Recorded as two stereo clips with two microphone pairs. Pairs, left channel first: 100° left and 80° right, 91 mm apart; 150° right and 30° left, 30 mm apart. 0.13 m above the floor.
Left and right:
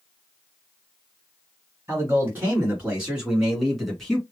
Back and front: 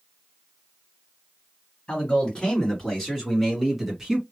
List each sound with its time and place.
1.9 s a man speaking: 120° right, 1.9 m; by 4.2 s 25° left, 1.7 m